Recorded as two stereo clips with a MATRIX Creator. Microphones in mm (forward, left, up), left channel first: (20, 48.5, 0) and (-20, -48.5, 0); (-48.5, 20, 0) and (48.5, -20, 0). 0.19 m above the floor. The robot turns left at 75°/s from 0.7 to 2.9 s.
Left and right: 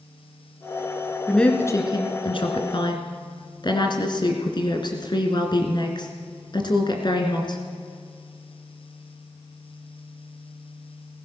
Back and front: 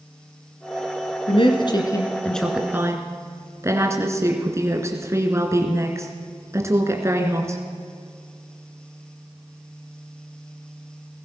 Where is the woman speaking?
155° left, 1.9 m; by 7.6 s 35° left, 1.9 m.